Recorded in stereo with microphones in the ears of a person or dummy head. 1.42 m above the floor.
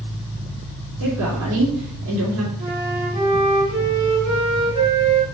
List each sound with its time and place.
1.0 s a woman speaking: 80° right, 3.5 m
2.6 s a flute: 30° right (ahead or behind), 4 m